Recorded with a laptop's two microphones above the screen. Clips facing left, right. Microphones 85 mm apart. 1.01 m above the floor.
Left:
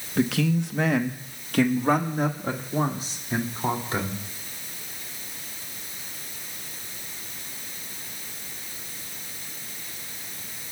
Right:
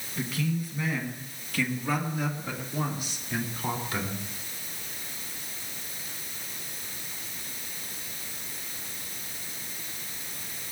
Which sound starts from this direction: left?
A man speaking, at 0.2 s.